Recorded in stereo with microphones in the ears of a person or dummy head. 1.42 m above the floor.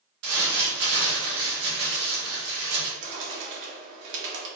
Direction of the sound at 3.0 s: 70° right (ahead or behind).